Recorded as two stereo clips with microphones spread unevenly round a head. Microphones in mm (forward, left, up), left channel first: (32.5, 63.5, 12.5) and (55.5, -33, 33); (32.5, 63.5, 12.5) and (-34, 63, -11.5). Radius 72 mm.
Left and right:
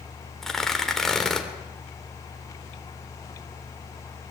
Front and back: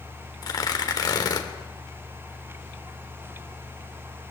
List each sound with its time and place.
0.4 s tearing paper: 15° left, 3.5 m